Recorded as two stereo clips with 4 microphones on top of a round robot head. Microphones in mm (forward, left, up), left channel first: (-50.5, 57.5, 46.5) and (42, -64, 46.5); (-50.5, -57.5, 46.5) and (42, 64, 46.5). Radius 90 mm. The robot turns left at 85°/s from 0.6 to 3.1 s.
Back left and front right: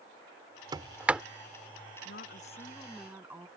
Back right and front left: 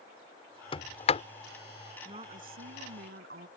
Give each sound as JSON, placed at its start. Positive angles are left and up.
{"t": 0.7, "sound": "a sliding door", "azimuth_deg": -100}
{"t": 2.0, "sound": "a woman speaking", "azimuth_deg": 115}